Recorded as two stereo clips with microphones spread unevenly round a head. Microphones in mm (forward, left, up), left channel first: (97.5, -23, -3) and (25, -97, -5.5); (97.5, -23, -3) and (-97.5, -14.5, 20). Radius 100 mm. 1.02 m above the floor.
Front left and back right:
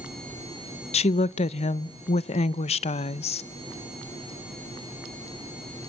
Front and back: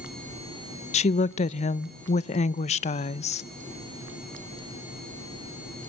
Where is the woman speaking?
50° left, 0.7 m.